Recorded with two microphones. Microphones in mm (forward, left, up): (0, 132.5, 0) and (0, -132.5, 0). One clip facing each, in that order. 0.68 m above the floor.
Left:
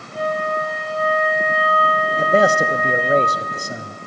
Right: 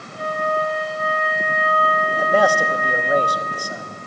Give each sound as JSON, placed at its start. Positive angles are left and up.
{"t": 0.1, "sound": "a flute", "side_deg": 75, "distance_m": 4.0}
{"t": 2.2, "sound": "a man speaking", "side_deg": 25, "distance_m": 0.6}